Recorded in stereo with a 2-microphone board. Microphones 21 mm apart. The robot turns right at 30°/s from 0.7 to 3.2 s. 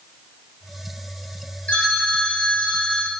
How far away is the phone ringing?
About 4 m.